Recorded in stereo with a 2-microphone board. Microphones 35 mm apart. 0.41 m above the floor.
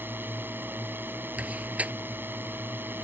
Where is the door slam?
40° right (ahead or behind).